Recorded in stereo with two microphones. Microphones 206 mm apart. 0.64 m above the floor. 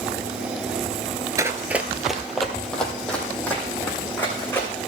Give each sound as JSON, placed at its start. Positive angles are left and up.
{"t": 1.4, "sound": "running footsteps", "side_deg": -15, "distance_m": 0.7}